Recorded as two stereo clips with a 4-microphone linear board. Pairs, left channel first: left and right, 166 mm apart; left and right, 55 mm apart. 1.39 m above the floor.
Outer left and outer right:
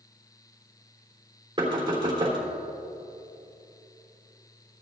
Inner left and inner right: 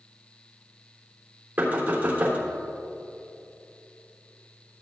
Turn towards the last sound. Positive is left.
turn(degrees=-30)  # may be behind; listen again after turning